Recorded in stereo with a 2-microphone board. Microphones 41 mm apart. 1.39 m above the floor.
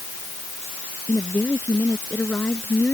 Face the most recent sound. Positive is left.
turn(degrees=55)  # may be behind; listen again after turning